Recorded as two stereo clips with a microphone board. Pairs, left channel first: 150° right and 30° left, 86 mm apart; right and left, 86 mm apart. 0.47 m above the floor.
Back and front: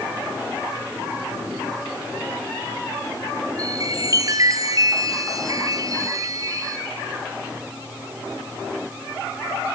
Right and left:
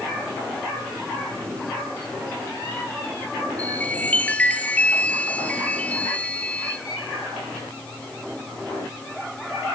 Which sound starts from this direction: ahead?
A chime, at 3.6 s.